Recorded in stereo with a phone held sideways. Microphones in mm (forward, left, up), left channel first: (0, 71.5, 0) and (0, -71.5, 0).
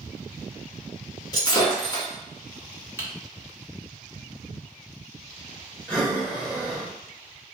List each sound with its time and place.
1.3 s breaking glass: 30° left (ahead or behind), 1.2 m
3.0 s typing on a keyboard: 20° right (ahead or behind), 0.8 m
5.9 s breathing: 10° left (ahead or behind), 1.0 m